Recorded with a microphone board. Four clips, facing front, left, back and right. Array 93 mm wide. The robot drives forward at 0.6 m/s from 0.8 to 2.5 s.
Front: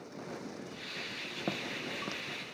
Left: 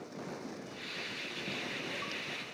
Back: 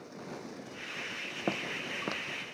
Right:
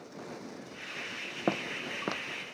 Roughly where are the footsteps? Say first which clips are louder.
Right 10 dB, back 3 dB; right.